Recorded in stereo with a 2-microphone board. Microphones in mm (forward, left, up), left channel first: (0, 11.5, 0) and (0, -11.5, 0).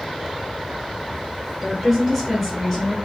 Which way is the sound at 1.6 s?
15° right (ahead or behind).